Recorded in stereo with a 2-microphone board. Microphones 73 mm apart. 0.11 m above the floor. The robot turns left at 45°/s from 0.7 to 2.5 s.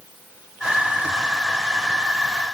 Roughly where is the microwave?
I don't hear a microwave.